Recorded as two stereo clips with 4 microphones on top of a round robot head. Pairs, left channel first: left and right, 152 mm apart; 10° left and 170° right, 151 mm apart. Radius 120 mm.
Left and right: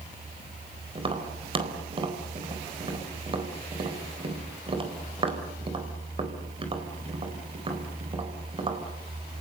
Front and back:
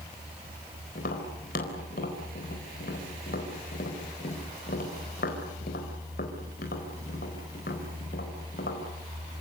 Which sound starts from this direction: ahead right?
Tapping, at 0.9 s.